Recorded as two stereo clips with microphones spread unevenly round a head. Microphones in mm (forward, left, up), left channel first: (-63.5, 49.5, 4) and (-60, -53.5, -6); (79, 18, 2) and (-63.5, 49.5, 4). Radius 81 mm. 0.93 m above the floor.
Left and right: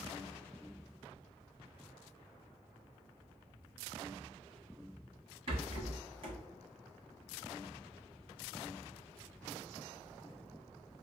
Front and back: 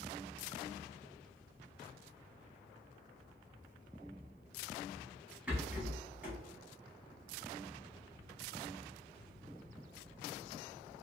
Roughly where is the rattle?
Right.